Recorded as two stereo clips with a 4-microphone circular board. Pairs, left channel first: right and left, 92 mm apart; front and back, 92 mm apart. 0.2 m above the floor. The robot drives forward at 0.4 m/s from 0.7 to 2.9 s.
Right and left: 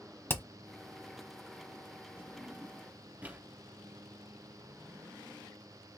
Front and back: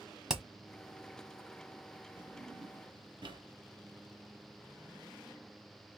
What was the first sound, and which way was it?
Hammering, 105° right.